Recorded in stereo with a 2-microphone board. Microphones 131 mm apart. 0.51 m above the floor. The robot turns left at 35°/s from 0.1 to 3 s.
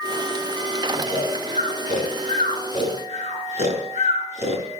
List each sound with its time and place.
1.0 s snoring: 45° right (ahead or behind), 6 m; by 4.8 s 65° right (ahead or behind), 6 m